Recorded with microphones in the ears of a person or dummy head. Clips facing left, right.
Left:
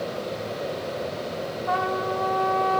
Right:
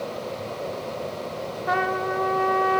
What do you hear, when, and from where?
1.7 s a trumpet: 25° right (ahead or behind), 1.2 m